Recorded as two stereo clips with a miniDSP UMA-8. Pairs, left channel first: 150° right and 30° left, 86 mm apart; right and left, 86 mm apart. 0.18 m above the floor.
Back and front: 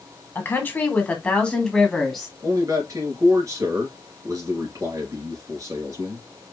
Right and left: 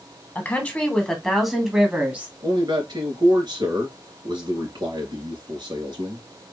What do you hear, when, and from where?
0.3 s a woman speaking: 130° right, 1.7 m; by 2.3 s 120° left, 1.6 m
2.4 s a man speaking: 75° left, 2.5 m